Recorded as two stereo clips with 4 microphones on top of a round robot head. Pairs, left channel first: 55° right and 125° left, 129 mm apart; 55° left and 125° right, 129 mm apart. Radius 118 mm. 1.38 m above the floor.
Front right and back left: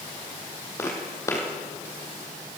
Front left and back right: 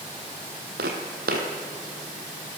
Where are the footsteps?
125° right, 3 m.